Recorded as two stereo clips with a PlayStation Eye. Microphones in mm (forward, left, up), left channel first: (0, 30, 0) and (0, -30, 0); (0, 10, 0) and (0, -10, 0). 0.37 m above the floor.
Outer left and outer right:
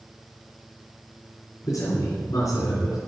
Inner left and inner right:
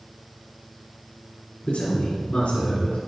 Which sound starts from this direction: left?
A man speaking, at 1.6 s.